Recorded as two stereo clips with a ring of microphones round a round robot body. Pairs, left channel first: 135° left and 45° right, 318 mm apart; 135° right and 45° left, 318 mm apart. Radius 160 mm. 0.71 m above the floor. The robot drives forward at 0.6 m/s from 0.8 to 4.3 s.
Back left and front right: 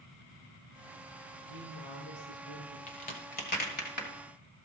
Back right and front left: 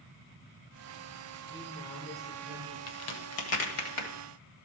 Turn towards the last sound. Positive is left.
turn(degrees=-165)